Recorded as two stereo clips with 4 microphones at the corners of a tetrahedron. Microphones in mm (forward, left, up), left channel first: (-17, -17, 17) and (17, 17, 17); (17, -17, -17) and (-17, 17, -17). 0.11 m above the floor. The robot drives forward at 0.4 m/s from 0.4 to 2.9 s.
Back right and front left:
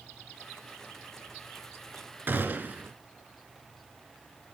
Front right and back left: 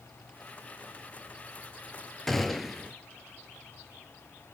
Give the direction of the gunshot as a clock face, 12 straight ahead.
11 o'clock.